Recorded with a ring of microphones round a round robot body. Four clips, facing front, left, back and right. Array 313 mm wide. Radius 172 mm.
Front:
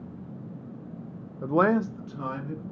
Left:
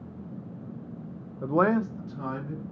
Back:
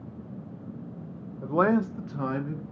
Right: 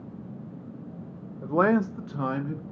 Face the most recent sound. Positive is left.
turn(degrees=-110)